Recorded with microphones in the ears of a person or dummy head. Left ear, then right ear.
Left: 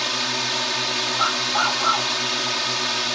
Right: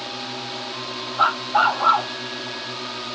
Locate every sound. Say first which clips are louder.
0.0 s a drone: left 8 dB; 60° left (ahead or behind)
1.2 s a dog barking: right 5 dB; 20° right (ahead or behind)